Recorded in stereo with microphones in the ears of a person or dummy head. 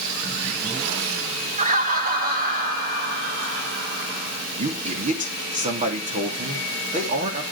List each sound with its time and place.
1.6 s laughter: 35° right (ahead or behind), 0.7 m; by 4.5 s 50° right (ahead or behind), 3 m
4.6 s a man speaking: 35° right (ahead or behind), 3.5 m